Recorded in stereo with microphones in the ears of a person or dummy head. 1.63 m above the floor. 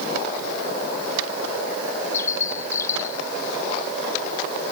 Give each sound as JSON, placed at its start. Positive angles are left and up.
{"t": 2.1, "sound": "a bird", "side_deg": 20}